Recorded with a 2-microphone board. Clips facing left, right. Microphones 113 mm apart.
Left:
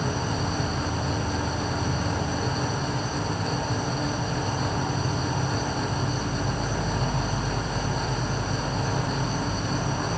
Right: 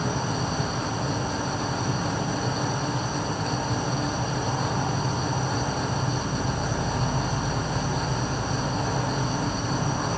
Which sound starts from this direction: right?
An insect, at 0.0 s.